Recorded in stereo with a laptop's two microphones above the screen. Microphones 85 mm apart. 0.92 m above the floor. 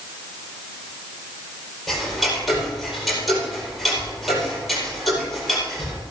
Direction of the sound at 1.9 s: Centre (ahead or behind).